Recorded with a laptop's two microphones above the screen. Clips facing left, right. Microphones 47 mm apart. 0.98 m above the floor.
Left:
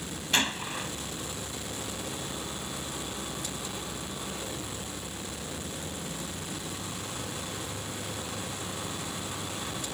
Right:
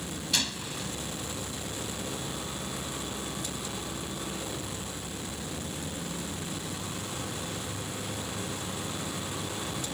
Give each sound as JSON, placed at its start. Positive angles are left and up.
{"t": 0.3, "sound": "a gunshot", "side_deg": 35}